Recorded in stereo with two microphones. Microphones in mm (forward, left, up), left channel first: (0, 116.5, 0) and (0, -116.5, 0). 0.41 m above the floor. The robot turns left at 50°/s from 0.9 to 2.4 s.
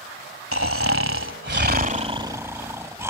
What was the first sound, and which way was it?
Snoring, 90° right.